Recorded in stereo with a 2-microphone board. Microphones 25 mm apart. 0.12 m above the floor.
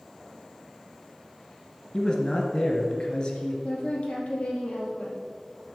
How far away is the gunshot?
I don't hear a gunshot.